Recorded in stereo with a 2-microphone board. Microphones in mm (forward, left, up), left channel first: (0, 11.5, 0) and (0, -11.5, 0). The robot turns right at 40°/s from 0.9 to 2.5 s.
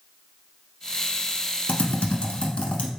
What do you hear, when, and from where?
1.7 s typing on a keyboard: 80° left, 0.8 m; by 2.9 s 55° left (ahead or behind), 0.8 m